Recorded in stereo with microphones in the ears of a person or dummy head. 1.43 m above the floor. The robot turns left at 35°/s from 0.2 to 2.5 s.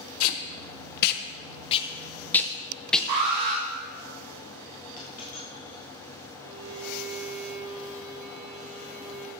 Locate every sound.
0.2 s tape being pulled: 80° left, 0.7 m; by 3.1 s centre (ahead or behind), 0.7 m
3.1 s an alarm: 55° right (ahead or behind), 4 m
5.0 s a dropped coin: 55° left (ahead or behind), 3 m
6.4 s a violin: 60° right (ahead or behind), 3.5 m